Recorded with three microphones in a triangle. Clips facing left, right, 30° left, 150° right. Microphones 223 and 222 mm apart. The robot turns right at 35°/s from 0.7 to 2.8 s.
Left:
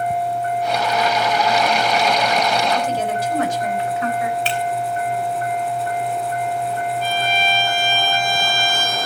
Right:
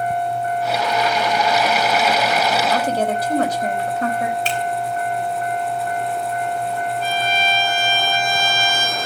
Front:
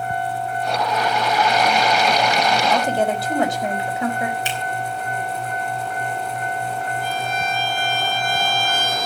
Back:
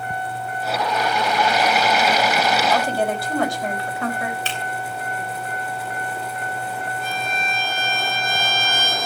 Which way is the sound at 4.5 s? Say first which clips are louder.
Even, front 2 dB; 45° right.